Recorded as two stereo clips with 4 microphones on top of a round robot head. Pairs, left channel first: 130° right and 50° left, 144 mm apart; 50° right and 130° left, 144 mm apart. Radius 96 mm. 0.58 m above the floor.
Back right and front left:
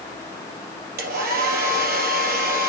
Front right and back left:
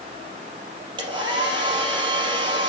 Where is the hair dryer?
70° left, 4 m.